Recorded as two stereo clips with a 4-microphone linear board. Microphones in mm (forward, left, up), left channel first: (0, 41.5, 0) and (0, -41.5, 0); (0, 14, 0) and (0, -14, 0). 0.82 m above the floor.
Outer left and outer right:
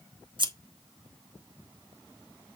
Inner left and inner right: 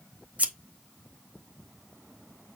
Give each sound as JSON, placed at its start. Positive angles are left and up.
{"t": 0.4, "sound": "scissors", "side_deg": -65, "distance_m": 1.3}